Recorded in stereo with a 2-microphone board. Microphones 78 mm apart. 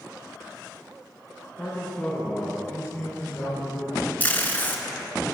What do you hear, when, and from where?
1.6 s a man speaking: centre (ahead or behind), 2 m; by 4.1 s 40° left (ahead or behind), 3.5 m
4.2 s tape being pulled: 25° left (ahead or behind), 0.7 m